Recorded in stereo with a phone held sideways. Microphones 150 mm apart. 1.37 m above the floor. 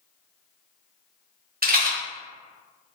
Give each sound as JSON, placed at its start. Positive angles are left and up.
{"t": 1.6, "sound": "a rattle", "side_deg": -80, "distance_m": 1.0}